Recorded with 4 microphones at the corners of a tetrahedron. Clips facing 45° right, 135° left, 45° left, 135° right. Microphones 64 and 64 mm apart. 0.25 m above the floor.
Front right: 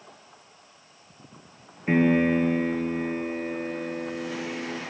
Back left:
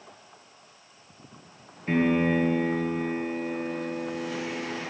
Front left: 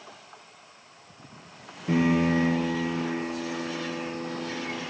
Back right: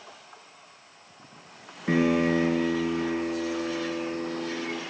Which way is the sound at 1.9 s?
110° right.